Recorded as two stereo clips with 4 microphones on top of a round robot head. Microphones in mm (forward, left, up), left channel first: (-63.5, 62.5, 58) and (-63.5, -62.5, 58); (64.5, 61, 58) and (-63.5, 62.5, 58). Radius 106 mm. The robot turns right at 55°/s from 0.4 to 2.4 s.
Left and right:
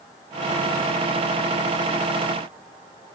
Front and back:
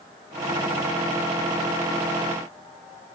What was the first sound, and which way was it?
Only background noise.